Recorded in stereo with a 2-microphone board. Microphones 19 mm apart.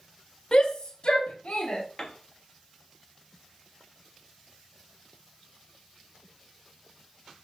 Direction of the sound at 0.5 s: 60° left (ahead or behind).